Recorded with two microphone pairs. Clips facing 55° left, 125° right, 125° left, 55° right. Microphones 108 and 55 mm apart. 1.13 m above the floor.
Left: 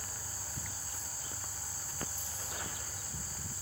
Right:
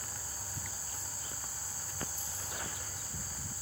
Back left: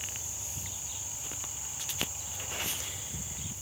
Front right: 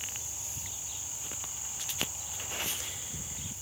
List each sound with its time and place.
Only background noise.